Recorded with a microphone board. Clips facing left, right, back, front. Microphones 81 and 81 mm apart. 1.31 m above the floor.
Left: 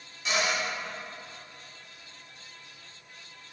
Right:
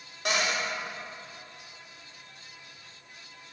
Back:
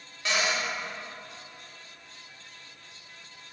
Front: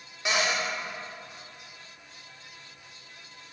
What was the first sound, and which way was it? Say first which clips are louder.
A cupboard door: even, front 1 dB; 70° right.